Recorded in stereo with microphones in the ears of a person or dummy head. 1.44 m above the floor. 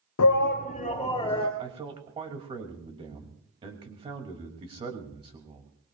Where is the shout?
80° left, 0.5 m; by 1.5 s 20° left (ahead or behind), 2 m.